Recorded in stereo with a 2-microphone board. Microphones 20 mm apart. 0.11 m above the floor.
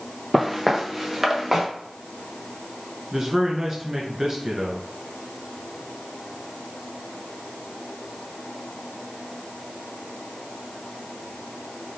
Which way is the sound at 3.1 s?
25° right (ahead or behind).